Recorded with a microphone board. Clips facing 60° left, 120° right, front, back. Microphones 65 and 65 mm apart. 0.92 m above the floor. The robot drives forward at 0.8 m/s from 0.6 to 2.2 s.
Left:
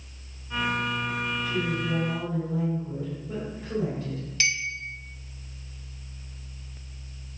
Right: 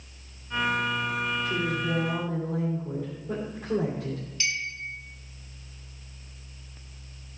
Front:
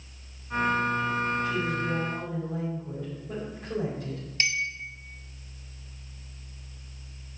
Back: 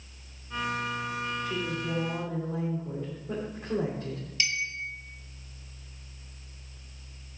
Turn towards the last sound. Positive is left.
turn(degrees=45)